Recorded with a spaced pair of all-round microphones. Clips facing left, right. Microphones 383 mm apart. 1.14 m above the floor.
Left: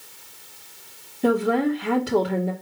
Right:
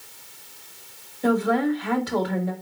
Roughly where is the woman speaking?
Left.